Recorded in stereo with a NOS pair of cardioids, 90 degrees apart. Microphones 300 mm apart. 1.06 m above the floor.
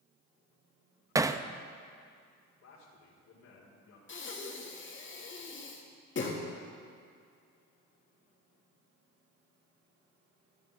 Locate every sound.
1.1 s hammering: 10° right, 0.5 m
2.6 s a man speaking: 60° left, 4.5 m
4.1 s breathing: 40° left, 2.0 m